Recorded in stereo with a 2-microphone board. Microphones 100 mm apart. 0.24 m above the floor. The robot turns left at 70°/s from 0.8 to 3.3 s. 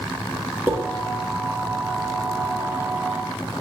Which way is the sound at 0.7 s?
20° right (ahead or behind).